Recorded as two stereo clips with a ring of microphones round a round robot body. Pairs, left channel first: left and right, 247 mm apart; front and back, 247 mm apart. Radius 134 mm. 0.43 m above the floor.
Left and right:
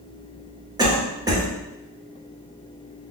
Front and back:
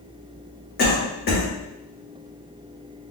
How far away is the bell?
I don't hear a bell.